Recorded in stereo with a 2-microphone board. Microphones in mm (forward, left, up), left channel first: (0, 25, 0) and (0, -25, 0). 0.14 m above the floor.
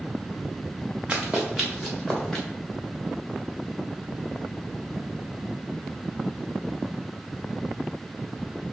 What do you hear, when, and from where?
1.1 s running footsteps: 25° right (ahead or behind), 0.8 m; by 2.5 s 5° left (ahead or behind), 1.7 m